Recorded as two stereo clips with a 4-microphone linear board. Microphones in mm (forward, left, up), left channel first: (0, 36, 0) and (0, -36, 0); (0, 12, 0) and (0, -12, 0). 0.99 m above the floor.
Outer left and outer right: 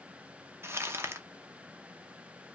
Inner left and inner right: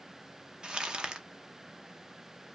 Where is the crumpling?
35° right (ahead or behind), 0.8 m.